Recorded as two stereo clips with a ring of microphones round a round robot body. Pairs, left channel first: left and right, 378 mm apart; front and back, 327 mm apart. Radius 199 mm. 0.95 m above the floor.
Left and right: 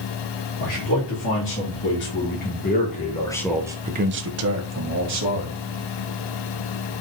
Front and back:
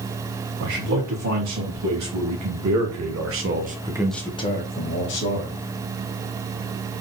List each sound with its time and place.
0.6 s a man speaking: 145° left, 2.5 m; by 5.6 s 50° right, 1.5 m